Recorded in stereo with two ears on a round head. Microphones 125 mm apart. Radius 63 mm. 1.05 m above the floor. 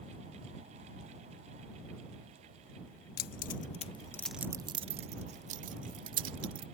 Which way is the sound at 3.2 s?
70° left (ahead or behind).